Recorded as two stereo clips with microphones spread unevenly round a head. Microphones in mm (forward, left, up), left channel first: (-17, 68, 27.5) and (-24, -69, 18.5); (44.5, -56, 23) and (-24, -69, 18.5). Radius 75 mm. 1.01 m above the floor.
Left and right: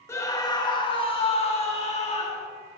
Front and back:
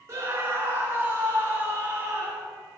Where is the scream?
155° left, 1.0 m; by 2.5 s 125° left, 2.0 m.